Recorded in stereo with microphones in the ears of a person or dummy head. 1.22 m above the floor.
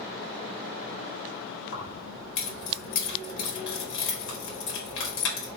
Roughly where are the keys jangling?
Left.